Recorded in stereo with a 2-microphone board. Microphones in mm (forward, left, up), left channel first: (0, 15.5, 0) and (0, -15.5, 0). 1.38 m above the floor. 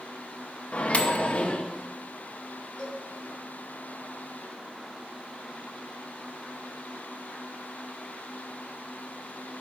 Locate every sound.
0.7 s a microwave: 40° left (ahead or behind), 0.5 m
2.8 s a cowbell: 30° left (ahead or behind), 2 m